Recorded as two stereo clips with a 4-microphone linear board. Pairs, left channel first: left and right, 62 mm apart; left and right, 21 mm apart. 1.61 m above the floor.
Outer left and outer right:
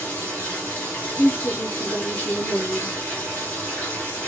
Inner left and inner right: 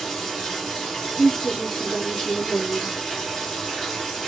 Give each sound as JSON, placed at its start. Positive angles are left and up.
{"t": 0.0, "sound": "running water", "side_deg": 20, "distance_m": 1.3}
{"t": 1.2, "sound": "a woman speaking", "side_deg": 35, "distance_m": 0.5}